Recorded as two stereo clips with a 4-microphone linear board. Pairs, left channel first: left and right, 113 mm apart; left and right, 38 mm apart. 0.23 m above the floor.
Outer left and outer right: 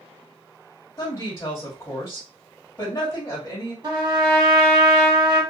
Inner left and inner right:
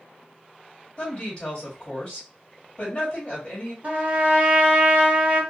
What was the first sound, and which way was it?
A woman speaking, 25° left (ahead or behind).